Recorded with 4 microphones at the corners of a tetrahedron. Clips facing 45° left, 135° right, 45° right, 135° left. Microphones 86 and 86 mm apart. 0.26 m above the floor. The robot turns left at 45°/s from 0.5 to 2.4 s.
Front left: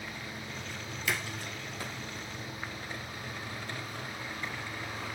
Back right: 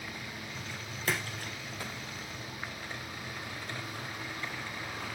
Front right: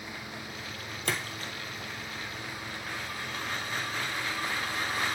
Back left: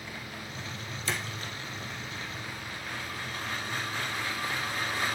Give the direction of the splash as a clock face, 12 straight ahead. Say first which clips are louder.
Back right 1 dB, front right 1 dB; 3 o'clock.